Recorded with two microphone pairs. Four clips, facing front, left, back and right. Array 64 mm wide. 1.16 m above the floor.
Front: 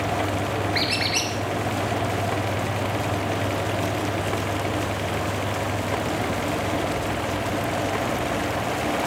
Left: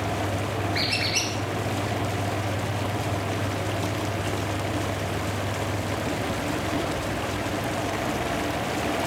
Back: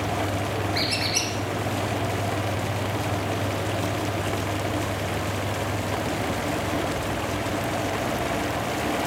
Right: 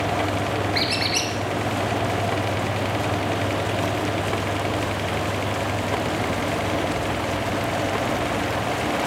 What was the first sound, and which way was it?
A squeak, 20° right.